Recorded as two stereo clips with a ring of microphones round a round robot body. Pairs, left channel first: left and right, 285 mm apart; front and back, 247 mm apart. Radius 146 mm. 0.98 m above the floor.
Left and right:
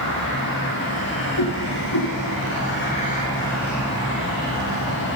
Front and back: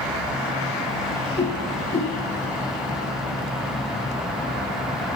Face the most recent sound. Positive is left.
turn(degrees=65)